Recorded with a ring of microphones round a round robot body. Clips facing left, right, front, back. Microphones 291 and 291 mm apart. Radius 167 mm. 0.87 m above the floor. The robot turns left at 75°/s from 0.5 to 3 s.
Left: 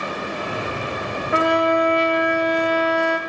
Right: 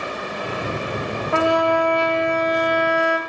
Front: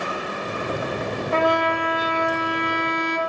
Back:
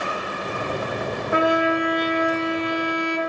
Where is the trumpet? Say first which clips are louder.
Even, back 3 dB; 125° left, 0.8 m; by 3.2 s 5° right, 0.8 m.